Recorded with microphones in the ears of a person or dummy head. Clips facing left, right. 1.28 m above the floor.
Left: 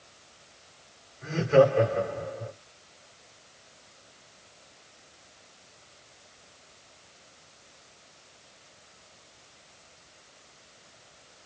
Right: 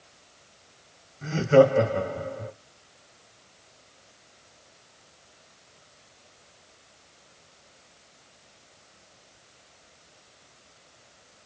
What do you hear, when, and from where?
1.2 s laughter: 60° right (ahead or behind), 3 m